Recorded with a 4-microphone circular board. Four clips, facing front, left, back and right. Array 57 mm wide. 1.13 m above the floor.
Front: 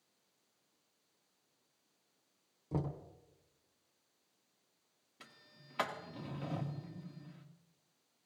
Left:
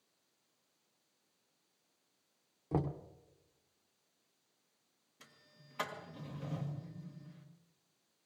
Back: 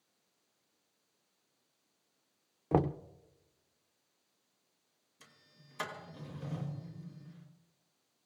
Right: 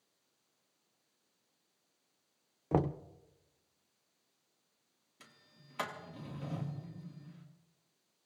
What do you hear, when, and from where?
2.7 s knocking: 150° right, 0.5 m
5.2 s a sliding door: 15° right, 1.8 m